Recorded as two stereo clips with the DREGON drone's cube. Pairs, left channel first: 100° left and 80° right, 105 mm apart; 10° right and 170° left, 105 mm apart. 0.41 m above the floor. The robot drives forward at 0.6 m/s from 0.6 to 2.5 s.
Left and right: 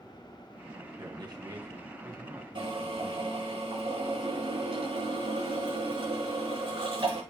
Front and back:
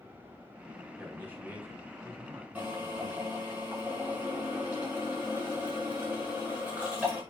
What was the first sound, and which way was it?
A man speaking, 120° right.